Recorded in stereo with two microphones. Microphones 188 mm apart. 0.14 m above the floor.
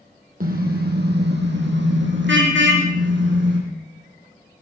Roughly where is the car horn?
Right.